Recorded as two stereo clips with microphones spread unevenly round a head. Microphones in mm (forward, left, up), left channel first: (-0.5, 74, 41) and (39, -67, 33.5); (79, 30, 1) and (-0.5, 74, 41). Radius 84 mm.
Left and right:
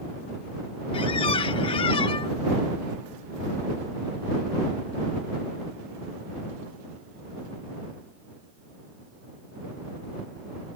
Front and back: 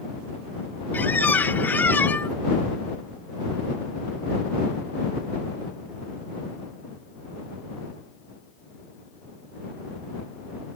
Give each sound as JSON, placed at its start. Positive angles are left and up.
{"t": 0.9, "sound": "a squeak", "azimuth_deg": 50}